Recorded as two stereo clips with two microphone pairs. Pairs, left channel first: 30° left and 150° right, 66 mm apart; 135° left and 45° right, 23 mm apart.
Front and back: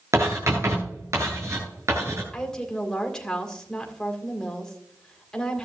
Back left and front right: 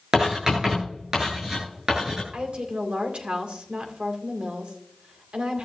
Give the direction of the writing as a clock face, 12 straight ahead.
4 o'clock.